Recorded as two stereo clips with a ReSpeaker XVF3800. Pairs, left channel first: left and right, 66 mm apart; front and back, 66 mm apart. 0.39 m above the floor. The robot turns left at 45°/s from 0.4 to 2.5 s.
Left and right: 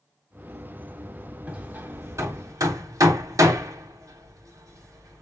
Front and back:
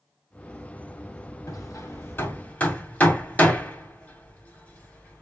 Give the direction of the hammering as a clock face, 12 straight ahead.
1 o'clock.